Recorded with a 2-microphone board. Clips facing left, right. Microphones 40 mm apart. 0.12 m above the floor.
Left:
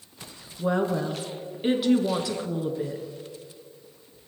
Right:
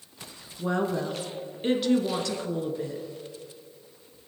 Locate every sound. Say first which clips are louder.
0.6 s a woman speaking: left 2 dB; 5° left (ahead or behind), 1.6 m